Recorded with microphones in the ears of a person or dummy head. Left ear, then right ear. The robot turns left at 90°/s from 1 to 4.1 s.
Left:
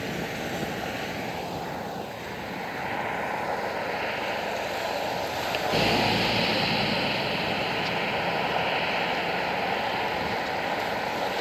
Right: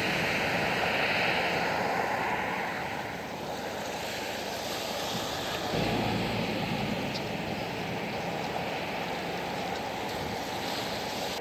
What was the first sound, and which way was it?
A vehicle, 20° right.